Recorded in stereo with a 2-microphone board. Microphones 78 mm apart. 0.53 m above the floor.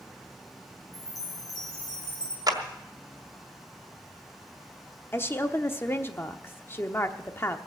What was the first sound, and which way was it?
A chime, 55° left (ahead or behind).